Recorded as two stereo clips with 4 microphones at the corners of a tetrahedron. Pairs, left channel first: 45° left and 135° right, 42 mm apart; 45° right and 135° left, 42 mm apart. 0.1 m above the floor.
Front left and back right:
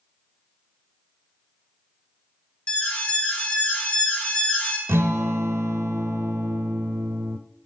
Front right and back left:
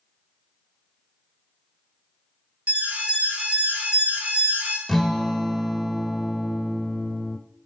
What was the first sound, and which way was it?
An alarm, 95° left.